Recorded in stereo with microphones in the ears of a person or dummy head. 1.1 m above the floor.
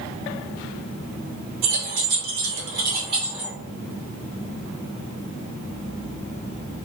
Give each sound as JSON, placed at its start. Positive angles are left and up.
{"t": 1.6, "sound": "keys jangling", "side_deg": -80, "distance_m": 1.3}